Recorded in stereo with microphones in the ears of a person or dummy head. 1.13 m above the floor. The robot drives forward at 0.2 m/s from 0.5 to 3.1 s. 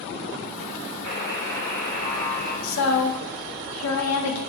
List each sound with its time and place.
1.0 s a buzzer: 20° left (ahead or behind), 1.1 m; by 2.5 s 15° left (ahead or behind), 1.4 m
2.6 s a woman speaking: 85° left, 0.6 m